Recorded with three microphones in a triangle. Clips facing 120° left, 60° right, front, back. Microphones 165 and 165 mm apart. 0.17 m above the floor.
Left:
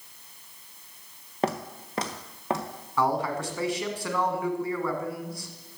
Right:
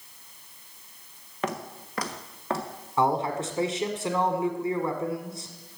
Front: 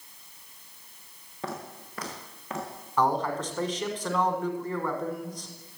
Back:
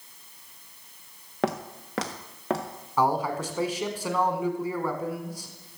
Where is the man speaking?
105° right, 1.4 m.